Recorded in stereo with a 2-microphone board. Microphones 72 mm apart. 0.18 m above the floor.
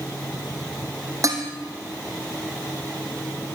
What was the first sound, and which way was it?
Dishes clattering, 45° right (ahead or behind).